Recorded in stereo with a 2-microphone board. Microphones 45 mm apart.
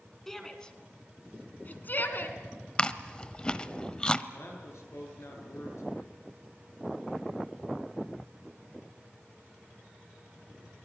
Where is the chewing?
20° left (ahead or behind), 0.9 m.